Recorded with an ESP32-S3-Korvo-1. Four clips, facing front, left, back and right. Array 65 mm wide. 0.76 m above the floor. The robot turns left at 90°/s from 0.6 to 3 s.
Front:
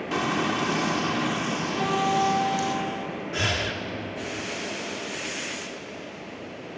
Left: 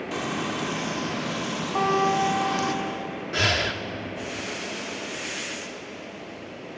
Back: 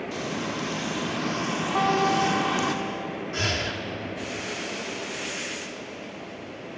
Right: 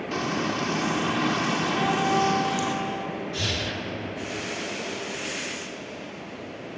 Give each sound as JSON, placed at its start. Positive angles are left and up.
{"t": 0.1, "sound": "frying", "azimuth_deg": -10, "distance_m": 2.5}
{"t": 1.8, "sound": "a guitar", "azimuth_deg": 140, "distance_m": 8.0}
{"t": 3.3, "sound": "breathing", "azimuth_deg": 80, "distance_m": 1.6}